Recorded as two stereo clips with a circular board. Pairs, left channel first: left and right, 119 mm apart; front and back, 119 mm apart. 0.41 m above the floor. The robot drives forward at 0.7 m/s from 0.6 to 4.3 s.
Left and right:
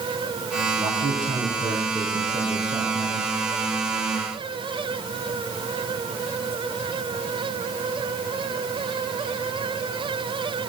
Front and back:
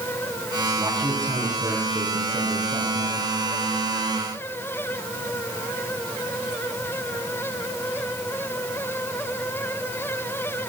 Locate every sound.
0.8 s a man speaking: 115° right, 10 m; by 3.3 s 120° right, 11 m